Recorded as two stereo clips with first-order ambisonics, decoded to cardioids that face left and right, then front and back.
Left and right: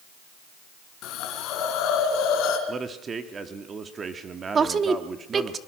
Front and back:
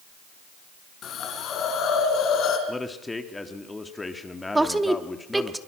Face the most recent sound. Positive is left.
turn(degrees=-110)